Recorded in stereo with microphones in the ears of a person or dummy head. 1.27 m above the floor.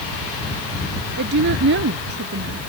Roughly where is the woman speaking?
Right.